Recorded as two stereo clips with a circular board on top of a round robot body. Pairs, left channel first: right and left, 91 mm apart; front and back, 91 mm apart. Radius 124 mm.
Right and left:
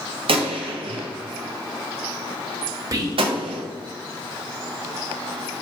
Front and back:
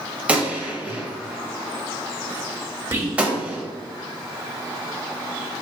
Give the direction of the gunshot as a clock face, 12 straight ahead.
9 o'clock.